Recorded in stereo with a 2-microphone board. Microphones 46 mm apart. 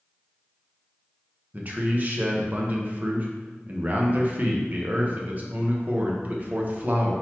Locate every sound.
1.5 s a man speaking: 35° right (ahead or behind), 0.9 m